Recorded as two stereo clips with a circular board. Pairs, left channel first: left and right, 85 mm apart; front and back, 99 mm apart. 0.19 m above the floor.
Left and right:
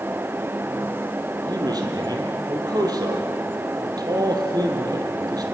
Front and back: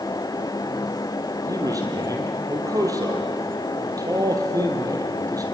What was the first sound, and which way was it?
A man speaking, 130° right.